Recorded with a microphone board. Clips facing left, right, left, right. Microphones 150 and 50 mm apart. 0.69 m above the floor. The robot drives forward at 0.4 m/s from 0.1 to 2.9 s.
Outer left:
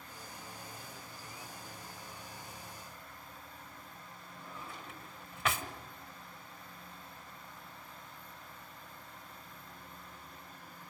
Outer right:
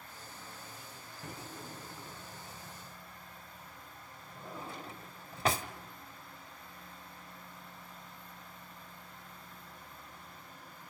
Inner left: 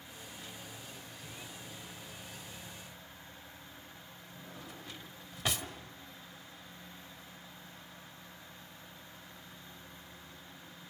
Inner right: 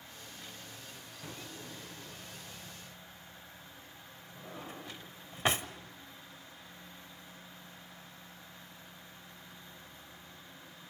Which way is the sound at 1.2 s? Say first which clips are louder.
Outer right 7 dB, inner right 5 dB; 70° right (ahead or behind).